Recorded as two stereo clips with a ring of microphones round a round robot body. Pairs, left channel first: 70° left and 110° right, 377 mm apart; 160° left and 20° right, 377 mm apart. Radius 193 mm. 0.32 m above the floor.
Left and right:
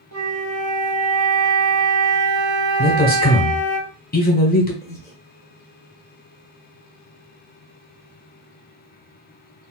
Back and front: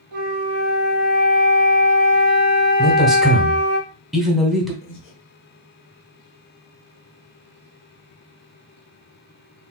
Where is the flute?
60° right, 1.4 m.